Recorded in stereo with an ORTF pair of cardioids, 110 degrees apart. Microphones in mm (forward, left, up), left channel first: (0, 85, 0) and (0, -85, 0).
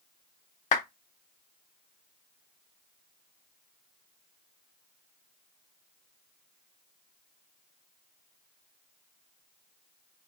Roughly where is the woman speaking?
No woman speaking in this recording.